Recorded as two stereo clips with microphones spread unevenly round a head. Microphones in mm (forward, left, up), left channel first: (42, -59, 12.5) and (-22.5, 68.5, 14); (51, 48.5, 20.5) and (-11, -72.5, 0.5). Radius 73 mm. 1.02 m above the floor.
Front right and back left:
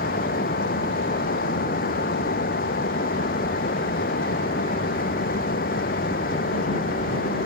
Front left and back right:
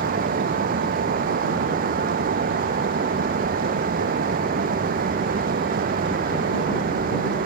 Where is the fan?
95° right.